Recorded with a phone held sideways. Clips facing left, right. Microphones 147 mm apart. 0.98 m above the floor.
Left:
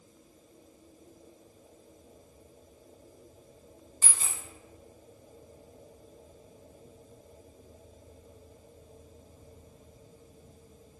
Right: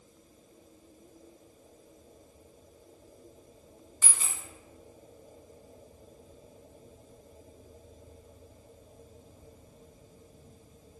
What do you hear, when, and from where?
4.0 s a dropped coin: 35° left (ahead or behind), 1.0 m